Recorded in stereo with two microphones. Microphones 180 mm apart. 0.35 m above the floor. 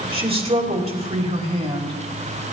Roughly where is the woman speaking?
Right.